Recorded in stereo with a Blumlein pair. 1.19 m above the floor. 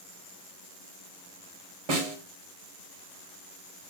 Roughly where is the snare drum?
Ahead right.